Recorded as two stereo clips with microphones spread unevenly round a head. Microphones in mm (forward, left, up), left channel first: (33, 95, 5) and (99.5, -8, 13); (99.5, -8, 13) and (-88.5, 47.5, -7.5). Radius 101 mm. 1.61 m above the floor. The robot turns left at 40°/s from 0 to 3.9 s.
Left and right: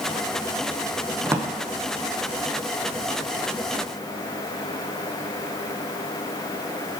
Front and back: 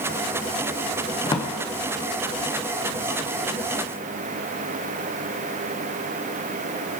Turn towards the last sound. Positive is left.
turn(degrees=-130)